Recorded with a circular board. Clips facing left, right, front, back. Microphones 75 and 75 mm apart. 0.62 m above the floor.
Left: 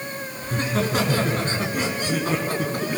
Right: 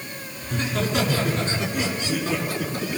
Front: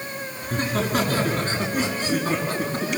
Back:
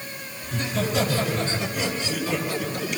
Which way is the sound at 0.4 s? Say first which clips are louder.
Left 2 dB, front 2 dB; 40° left.